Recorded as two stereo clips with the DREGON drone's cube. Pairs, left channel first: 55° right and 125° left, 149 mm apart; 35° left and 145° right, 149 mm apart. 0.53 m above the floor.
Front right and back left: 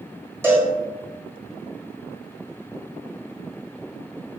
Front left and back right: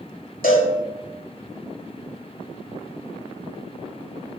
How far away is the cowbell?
About 1.5 m.